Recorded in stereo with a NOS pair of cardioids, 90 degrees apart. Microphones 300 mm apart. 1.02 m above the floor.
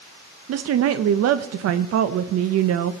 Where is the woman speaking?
55° right, 0.5 m.